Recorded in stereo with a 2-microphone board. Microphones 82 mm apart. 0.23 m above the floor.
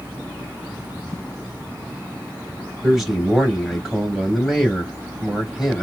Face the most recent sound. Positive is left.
turn(degrees=-5)  # may be behind; listen again after turning